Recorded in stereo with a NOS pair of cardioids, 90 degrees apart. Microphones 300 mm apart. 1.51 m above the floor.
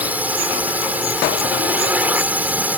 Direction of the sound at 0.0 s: 5° right.